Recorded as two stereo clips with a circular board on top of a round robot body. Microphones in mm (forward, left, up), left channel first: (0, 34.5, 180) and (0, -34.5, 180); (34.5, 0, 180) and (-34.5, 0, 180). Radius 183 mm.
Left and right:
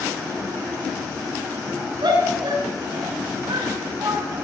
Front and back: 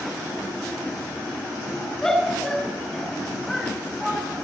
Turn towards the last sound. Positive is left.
turn(degrees=-90)